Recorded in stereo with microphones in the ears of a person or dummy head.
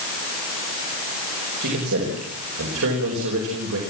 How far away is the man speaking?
About 4.5 m.